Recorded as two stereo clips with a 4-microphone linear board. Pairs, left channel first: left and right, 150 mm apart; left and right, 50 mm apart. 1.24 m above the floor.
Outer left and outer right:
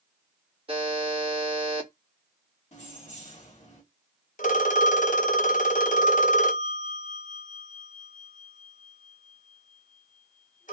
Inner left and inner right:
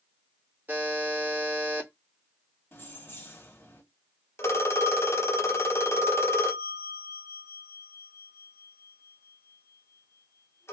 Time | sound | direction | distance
0.7 | a buzzer | 35° right (ahead or behind) | 1.4 m
2.7 | keys jangling | 50° left (ahead or behind) | 1.8 m
4.4 | a phone ringing | 60° left (ahead or behind) | 0.9 m